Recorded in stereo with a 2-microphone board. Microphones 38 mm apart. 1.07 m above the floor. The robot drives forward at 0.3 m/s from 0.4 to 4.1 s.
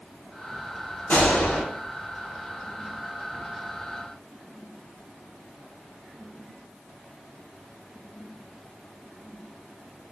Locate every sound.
1.1 s a gunshot: 70° left (ahead or behind), 1.8 m